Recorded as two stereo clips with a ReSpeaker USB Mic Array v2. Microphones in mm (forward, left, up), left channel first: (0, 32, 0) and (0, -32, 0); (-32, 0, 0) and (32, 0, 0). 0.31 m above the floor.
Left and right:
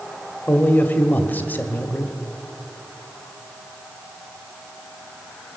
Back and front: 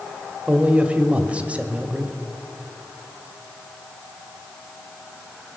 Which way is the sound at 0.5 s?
55° left.